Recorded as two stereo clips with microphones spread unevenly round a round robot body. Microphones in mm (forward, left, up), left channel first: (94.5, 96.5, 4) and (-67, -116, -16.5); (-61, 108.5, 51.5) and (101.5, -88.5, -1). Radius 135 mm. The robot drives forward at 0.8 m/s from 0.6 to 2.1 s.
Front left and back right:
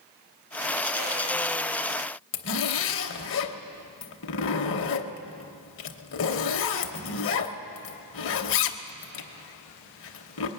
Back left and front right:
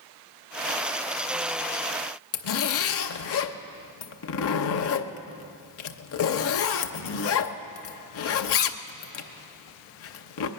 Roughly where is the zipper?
Left.